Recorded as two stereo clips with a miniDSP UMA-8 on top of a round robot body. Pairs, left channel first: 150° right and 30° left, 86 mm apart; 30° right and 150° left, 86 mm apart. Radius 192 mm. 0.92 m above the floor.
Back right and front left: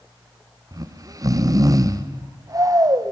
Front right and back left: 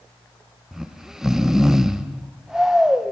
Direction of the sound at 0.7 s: 65° left.